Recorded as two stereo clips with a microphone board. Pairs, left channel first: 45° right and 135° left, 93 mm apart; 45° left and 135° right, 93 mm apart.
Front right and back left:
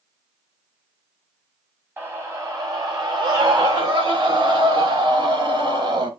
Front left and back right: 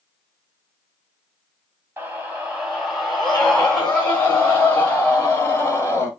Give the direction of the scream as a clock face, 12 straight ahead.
6 o'clock.